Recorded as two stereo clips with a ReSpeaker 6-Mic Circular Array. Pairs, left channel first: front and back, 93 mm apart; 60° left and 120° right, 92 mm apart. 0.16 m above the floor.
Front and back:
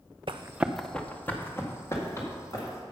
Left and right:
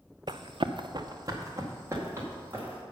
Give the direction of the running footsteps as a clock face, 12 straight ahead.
5 o'clock.